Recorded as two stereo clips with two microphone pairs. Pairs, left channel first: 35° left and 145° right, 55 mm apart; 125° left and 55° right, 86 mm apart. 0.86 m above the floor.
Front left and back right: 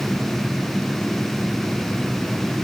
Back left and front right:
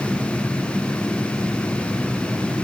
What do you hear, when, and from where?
Only background noise.